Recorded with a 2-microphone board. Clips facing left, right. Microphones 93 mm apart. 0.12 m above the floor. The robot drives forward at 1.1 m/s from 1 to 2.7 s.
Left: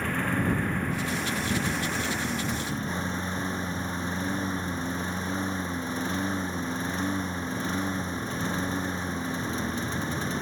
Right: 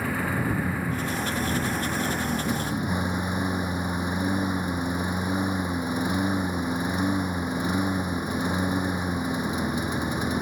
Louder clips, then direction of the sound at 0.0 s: Right 1 dB; 5° right (ahead or behind).